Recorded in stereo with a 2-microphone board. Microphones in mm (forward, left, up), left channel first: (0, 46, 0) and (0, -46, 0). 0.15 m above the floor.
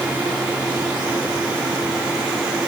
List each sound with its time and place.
Only background noise.